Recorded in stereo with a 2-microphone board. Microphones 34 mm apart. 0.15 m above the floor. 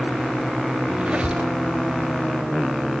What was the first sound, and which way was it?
A squeak, 35° right (ahead or behind).